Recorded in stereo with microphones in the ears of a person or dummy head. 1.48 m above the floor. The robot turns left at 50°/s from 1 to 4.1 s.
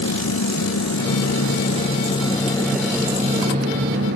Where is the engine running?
90° left; by 4.2 s 65° right.